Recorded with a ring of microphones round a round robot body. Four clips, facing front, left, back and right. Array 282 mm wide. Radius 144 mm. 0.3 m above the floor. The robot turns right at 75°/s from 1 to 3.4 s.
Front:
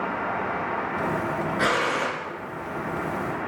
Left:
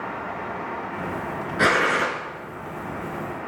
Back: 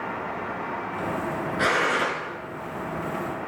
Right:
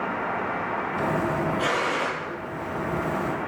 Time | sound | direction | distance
1.6 | a gunshot | 85° left | 4.5 m